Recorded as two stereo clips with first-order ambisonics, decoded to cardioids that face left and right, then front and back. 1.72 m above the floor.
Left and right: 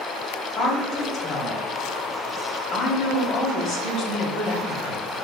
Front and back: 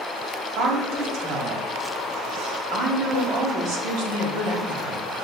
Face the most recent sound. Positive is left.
turn(degrees=145)